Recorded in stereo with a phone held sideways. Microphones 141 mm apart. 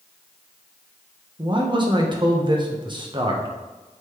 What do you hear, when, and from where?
1.4 s a man speaking: 35° right (ahead or behind), 1.1 m